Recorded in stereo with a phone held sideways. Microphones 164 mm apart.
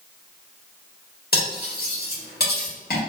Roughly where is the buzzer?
No buzzer in this recording.